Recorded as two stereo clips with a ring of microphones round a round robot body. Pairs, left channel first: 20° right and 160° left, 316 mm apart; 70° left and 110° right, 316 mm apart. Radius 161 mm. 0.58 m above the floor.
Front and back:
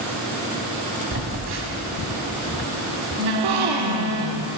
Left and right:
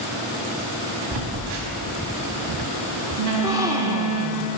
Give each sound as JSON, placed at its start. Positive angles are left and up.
{"t": 1.1, "sound": "a phone buzzing", "azimuth_deg": -150, "distance_m": 1.2}
{"t": 3.3, "sound": "a gasp", "azimuth_deg": 170, "distance_m": 0.7}